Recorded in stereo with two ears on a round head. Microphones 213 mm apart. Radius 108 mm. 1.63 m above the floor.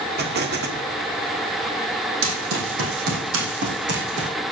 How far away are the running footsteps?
About 4 m.